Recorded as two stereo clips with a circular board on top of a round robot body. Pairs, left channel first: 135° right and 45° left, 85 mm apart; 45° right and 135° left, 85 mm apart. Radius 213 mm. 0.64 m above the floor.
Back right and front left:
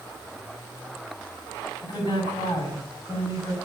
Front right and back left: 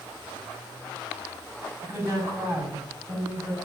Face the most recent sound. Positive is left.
turn(degrees=-170)